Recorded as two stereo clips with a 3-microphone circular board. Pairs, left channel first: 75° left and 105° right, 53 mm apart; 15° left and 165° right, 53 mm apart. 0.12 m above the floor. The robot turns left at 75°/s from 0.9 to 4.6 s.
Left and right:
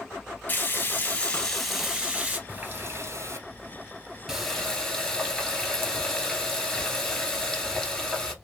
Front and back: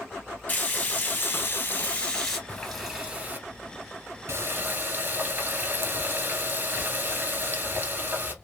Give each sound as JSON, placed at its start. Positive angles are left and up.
{"t": 0.5, "sound": "frying", "azimuth_deg": 50, "distance_m": 1.4}
{"t": 2.5, "sound": "a running tap", "azimuth_deg": -50, "distance_m": 1.3}